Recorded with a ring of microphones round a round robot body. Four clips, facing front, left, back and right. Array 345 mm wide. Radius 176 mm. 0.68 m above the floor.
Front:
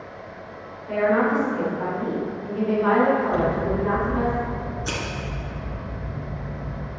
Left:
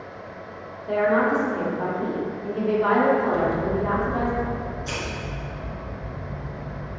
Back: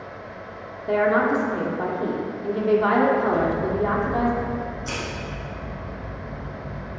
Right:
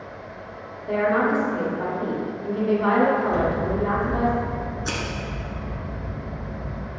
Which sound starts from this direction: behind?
A woman speaking, at 0.9 s.